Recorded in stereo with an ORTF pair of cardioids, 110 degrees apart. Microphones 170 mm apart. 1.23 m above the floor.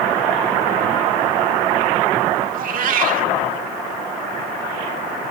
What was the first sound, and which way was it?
A cat meowing, 55° right.